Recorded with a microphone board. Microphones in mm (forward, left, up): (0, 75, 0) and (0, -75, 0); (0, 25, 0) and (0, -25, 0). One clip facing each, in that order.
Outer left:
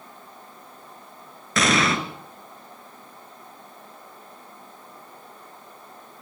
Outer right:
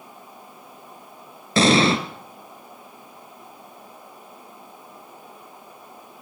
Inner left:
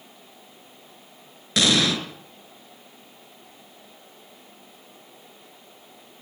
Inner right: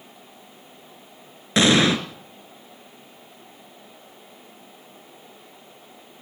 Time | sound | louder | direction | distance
1.6 | an explosion | outer right 5 dB, inner right 4 dB | 30° right (ahead or behind) | 2 m